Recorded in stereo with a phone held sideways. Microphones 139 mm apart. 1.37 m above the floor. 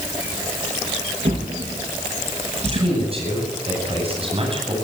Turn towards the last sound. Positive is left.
turn(degrees=-45)  # may be behind; listen again after turning